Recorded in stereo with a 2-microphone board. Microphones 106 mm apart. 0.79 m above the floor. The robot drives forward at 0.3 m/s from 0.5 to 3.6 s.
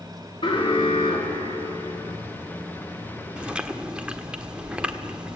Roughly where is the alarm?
Left.